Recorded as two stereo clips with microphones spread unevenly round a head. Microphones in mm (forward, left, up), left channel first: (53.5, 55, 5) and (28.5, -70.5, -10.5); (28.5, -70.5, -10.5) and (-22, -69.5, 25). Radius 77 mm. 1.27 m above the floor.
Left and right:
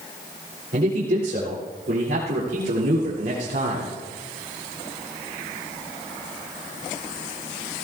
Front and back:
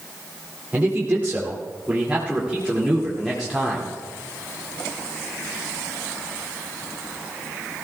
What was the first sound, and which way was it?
A man speaking, 120° right.